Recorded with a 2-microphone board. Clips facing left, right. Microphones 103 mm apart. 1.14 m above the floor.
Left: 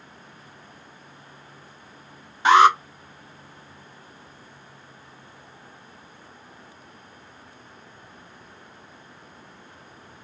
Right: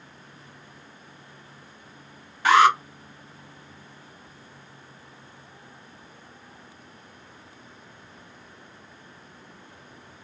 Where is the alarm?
20° left (ahead or behind), 1.1 m.